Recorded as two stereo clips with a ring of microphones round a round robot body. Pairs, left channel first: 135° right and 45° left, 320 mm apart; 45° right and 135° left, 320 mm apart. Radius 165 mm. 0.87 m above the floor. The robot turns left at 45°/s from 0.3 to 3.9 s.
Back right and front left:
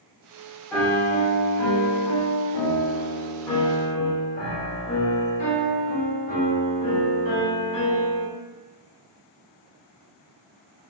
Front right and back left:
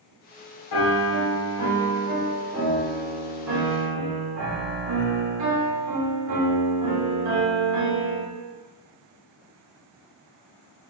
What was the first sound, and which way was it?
A piano, 55° right.